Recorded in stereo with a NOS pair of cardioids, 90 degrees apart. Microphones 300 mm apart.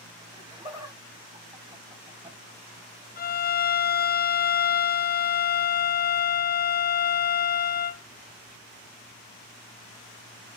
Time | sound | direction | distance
0.3 | laughter | 15° right | 2.5 m
3.2 | a violin | 30° left | 0.6 m